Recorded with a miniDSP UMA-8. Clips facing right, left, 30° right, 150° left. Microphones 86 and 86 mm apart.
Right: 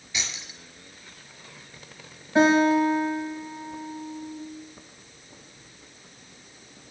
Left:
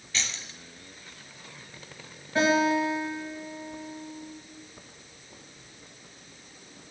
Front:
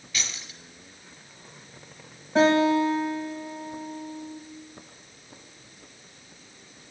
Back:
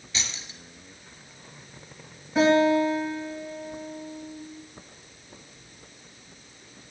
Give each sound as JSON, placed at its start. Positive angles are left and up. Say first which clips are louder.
{"t": 0.1, "sound": "keys jangling", "louder": "even, even", "azimuth_deg": -155, "distance_m": 1.0}
{"t": 2.4, "sound": "a guitar", "louder": "right 5 dB, even", "azimuth_deg": -20, "distance_m": 3.5}